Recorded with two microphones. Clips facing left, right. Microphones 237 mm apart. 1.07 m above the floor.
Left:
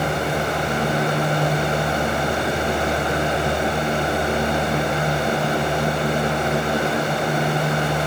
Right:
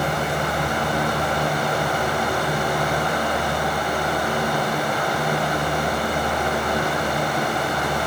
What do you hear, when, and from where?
Only background noise.